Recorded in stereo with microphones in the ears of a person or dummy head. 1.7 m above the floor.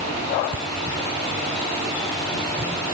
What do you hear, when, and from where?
Only background noise.